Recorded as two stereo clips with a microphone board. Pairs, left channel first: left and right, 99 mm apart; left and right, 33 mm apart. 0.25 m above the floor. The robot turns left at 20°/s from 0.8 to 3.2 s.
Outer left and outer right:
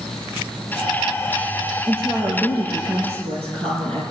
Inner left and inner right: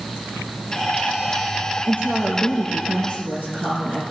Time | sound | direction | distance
1.9 | a woman speaking | 65° right (ahead or behind) | 4.5 m